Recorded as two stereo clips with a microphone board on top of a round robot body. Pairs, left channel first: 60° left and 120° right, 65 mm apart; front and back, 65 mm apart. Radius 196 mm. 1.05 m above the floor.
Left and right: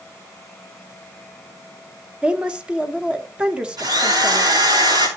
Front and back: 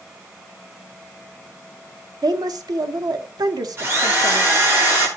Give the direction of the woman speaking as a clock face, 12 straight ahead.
6 o'clock.